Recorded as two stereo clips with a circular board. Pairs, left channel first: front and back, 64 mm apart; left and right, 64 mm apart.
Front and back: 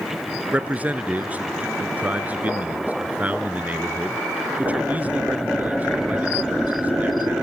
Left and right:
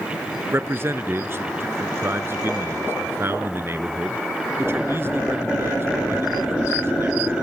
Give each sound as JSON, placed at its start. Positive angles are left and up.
{"t": 0.5, "sound": "a man speaking", "azimuth_deg": -125, "distance_m": 1.6}